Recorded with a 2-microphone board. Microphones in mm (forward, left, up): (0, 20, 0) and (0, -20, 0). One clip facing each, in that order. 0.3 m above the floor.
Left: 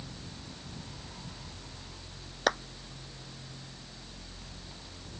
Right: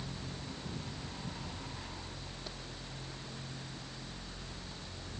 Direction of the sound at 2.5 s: 80° left.